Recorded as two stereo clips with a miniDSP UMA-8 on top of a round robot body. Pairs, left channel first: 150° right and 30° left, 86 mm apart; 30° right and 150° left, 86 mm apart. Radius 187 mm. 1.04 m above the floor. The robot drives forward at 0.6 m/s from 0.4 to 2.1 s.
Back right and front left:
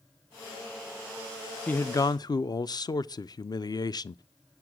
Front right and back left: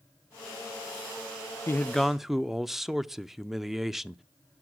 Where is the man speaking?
80° right, 0.5 m; by 4.2 s 125° right, 0.5 m.